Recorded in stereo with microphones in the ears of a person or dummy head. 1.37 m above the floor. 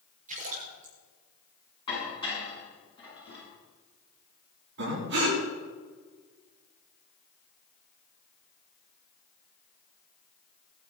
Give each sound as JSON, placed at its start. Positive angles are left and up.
{"t": 0.3, "sound": "a splash", "side_deg": -40, "distance_m": 4.5}
{"t": 1.9, "sound": "dishes clattering", "side_deg": 25, "distance_m": 8.5}
{"t": 4.8, "sound": "breathing", "side_deg": -60, "distance_m": 6.0}